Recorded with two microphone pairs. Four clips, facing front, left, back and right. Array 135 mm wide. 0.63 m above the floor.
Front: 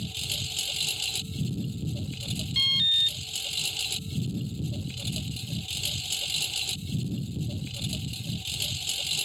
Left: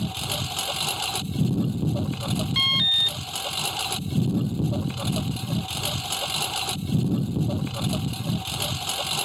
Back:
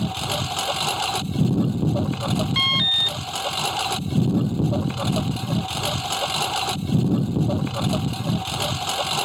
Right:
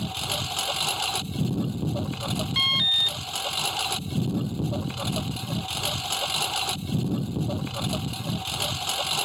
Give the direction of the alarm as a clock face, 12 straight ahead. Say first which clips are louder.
Left 1 dB, back 10 dB; 6 o'clock.